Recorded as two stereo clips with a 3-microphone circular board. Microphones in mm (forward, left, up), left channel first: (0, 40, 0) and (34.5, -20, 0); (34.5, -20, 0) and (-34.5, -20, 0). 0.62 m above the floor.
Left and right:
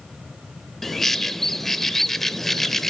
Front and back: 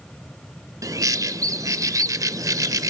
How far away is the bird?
About 0.5 m.